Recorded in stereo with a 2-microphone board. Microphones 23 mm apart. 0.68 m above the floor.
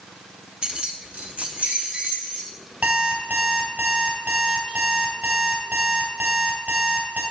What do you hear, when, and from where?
0.6 s keys jangling: 35° right (ahead or behind), 0.5 m; by 2.5 s 65° right (ahead or behind), 2.5 m
2.8 s an alarm clock: 85° right, 1.8 m